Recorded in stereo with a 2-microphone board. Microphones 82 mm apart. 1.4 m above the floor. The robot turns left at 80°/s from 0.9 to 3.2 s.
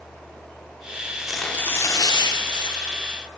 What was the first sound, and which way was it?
Tearing paper, 165° right.